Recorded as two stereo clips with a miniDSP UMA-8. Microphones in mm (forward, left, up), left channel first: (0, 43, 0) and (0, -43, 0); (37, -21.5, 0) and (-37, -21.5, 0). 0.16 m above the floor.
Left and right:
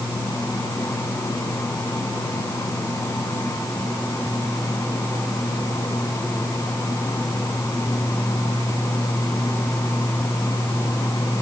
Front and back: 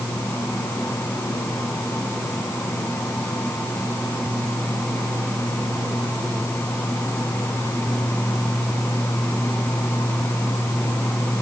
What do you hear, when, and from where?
Only background noise.